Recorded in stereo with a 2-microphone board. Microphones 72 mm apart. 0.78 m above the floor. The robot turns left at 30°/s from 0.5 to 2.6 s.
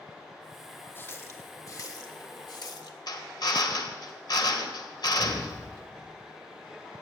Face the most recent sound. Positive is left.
turn(degrees=50)  # may be behind; listen again after turning